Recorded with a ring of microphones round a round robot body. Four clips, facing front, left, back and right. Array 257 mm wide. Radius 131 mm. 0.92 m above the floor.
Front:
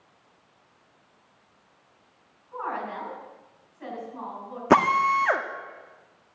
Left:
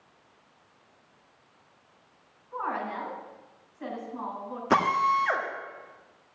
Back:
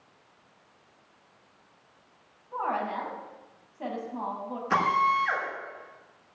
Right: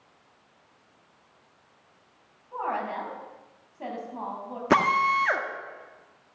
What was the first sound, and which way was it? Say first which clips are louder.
A woman speaking: right 2 dB, back 2 dB; 135° right.